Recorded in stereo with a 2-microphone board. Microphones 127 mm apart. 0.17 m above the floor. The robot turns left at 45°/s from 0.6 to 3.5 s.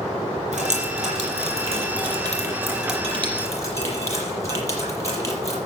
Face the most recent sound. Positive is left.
turn(degrees=25)  # may be behind; listen again after turning